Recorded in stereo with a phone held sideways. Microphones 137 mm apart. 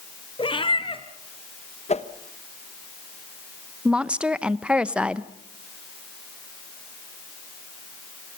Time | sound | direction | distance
0.4 | a cat meowing | 40° left (ahead or behind) | 1.6 m
1.9 | a whoosh | 55° left (ahead or behind) | 1.2 m
3.9 | a woman speaking | 10° right (ahead or behind) | 0.8 m